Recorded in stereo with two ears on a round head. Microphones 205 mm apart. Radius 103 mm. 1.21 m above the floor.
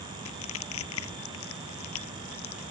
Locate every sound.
0.2 s crushing: 75° left (ahead or behind)